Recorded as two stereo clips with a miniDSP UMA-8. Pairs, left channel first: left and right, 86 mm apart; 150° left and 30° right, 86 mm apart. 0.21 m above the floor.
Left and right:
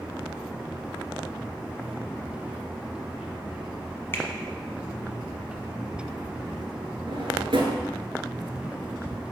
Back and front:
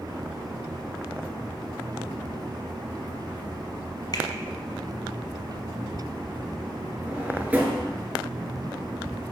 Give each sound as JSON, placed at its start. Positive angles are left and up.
{"t": 4.1, "sound": "a finger snap", "azimuth_deg": 140, "distance_m": 1.1}
{"t": 7.1, "sound": "a drawer", "azimuth_deg": -100, "distance_m": 1.1}